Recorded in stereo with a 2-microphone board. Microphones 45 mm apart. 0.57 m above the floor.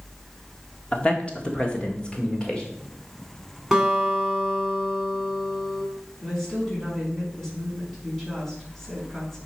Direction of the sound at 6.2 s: 5° left (ahead or behind).